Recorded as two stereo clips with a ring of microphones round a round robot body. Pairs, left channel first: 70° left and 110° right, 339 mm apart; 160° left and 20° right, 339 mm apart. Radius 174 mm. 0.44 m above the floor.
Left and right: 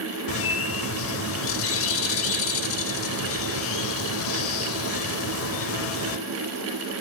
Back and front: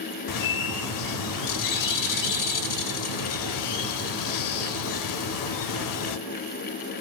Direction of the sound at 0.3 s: 120° left.